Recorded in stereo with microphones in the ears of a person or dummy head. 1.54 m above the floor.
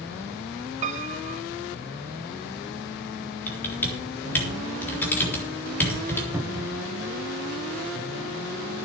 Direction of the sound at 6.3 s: 10° right (ahead or behind).